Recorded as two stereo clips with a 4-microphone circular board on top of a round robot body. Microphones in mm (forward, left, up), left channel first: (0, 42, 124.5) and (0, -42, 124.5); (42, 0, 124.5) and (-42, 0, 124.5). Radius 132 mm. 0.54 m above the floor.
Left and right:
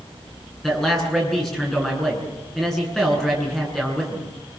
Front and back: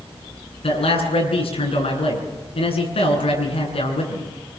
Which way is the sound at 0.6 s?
5° left.